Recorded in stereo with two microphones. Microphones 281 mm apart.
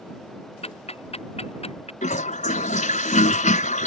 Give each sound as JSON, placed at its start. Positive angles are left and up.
{"t": 0.6, "sound": "ticking", "side_deg": 20}
{"t": 2.0, "sound": "a toilet flushing", "side_deg": 25}